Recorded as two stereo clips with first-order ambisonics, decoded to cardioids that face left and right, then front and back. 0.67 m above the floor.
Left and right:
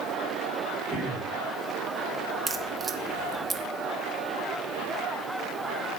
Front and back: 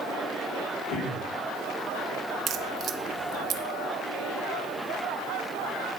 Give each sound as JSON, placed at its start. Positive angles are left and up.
{"t": 0.9, "sound": "throat clearing", "azimuth_deg": -20, "distance_m": 5.0}
{"t": 2.5, "sound": "a crack", "azimuth_deg": -160, "distance_m": 0.6}